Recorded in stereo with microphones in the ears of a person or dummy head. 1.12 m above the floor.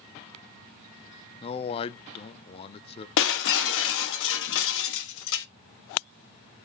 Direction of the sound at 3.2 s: 80° left.